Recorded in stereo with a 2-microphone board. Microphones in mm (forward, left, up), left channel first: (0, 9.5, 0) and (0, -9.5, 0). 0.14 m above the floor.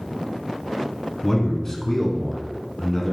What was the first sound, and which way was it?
A man speaking, 25° left (ahead or behind).